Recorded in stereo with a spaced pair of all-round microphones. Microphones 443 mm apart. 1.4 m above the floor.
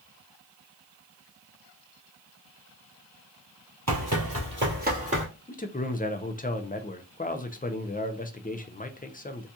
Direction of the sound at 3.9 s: 35° right (ahead or behind).